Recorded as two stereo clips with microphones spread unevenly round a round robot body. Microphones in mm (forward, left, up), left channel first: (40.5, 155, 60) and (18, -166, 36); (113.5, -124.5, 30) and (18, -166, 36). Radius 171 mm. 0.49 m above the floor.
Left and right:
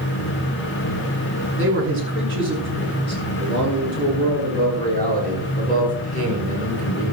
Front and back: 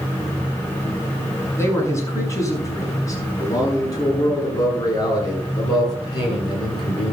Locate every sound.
1.6 s a man speaking: 40° right, 7 m; by 7.1 s 25° right, 8.5 m